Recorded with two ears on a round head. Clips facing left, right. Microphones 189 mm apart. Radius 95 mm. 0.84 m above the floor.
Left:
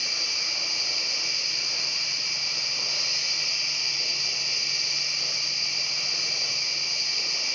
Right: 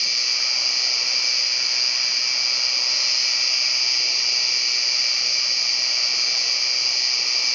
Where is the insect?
30° right (ahead or behind), 1.0 m.